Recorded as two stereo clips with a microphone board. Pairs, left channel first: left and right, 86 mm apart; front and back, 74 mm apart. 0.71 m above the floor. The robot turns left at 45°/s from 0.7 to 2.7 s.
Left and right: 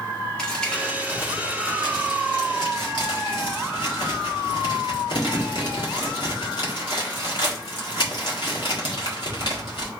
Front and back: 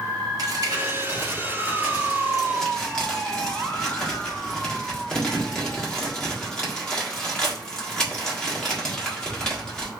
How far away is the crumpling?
About 1.5 m.